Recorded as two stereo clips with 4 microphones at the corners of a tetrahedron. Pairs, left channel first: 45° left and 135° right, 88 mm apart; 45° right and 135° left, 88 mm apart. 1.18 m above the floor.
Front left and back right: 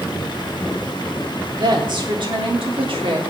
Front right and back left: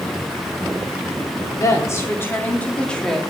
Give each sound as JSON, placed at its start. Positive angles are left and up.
{"t": 1.6, "sound": "a woman speaking", "azimuth_deg": -95, "distance_m": 3.0}